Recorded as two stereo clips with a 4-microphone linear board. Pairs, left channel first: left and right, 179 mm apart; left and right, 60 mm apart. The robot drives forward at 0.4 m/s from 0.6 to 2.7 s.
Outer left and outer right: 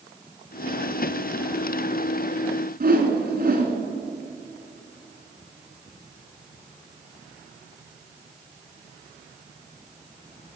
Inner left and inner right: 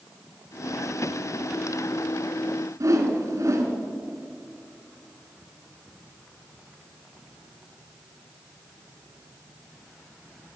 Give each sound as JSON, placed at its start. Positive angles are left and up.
{"t": 2.8, "sound": "a whoosh", "side_deg": -55, "distance_m": 1.6}